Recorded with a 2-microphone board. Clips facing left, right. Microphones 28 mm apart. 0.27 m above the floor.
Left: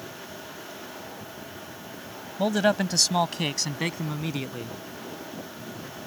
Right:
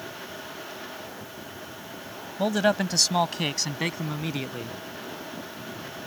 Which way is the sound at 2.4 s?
Centre (ahead or behind).